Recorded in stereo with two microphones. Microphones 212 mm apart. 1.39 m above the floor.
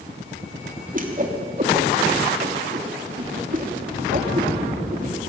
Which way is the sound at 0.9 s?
40° right (ahead or behind).